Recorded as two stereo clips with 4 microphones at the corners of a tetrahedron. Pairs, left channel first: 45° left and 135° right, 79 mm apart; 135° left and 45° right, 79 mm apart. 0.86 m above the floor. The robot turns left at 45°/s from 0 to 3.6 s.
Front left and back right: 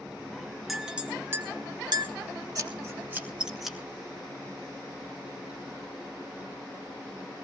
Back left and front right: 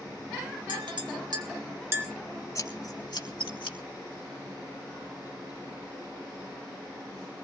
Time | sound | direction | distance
0.7 | a clink | 45° right | 1.7 m
2.5 | scissors | 175° right | 1.9 m